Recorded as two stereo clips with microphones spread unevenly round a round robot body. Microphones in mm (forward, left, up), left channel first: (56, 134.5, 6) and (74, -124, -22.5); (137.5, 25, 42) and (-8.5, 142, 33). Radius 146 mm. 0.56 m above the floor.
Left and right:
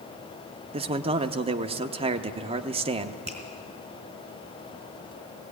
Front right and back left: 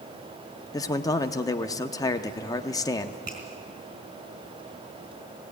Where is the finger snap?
155° right, 4 m.